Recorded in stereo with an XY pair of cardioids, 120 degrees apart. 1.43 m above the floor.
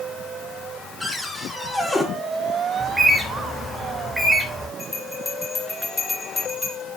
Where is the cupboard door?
Straight ahead, 5.5 m.